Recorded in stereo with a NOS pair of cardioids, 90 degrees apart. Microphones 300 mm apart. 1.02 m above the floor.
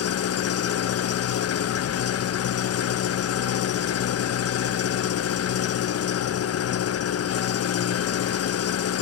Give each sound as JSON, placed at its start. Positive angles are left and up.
{"t": 0.0, "sound": "an engine running", "azimuth_deg": 50, "distance_m": 0.7}